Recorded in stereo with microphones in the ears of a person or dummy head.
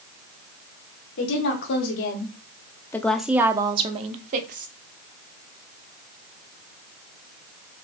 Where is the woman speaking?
65° left (ahead or behind), 1.4 m; by 4.7 s 50° right (ahead or behind), 1.3 m.